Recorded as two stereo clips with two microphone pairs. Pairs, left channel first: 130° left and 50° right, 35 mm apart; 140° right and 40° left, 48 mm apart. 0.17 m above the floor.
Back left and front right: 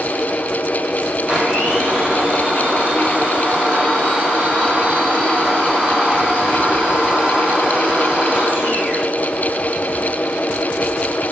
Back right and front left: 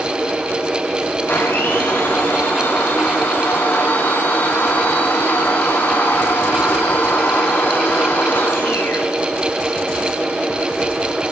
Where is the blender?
110° right, 6 m.